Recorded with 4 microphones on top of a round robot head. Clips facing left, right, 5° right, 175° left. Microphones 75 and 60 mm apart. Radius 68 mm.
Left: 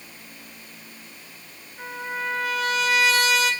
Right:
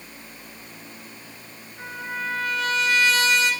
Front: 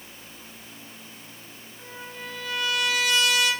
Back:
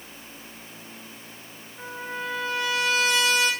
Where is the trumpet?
175° left, 3 m.